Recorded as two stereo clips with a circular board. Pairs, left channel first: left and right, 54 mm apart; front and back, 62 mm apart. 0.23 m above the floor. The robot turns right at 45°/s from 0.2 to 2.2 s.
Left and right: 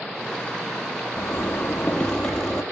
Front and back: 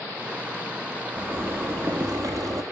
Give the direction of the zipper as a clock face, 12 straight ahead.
8 o'clock.